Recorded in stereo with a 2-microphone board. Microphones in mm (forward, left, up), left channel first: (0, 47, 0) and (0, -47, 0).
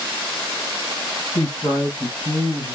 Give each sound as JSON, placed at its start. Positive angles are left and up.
{"t": 1.4, "sound": "a man speaking", "side_deg": 40, "distance_m": 2.0}